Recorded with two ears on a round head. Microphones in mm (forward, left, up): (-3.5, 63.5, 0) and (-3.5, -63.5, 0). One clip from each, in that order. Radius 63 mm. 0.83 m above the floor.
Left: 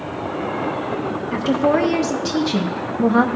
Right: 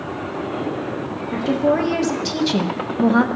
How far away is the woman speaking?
About 0.7 m.